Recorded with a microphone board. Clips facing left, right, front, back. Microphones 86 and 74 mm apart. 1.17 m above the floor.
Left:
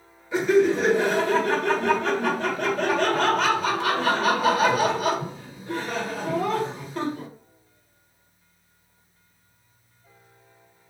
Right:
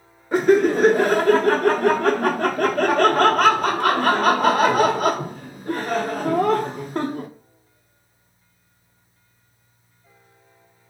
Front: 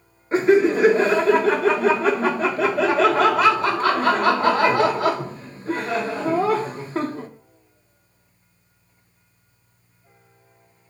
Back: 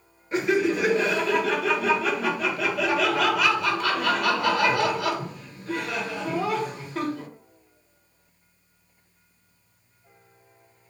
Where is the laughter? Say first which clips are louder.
Right 3 dB, front 7 dB; 55° right, 0.7 m.